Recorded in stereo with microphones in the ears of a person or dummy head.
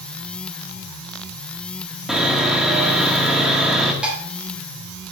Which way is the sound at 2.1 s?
Centre (ahead or behind).